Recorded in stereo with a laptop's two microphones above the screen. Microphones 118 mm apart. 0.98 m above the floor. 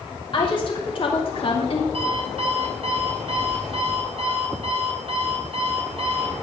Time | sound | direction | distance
0.3 | a woman speaking | 45° left (ahead or behind) | 2.5 m
1.9 | an alarm clock | 55° right (ahead or behind) | 2.5 m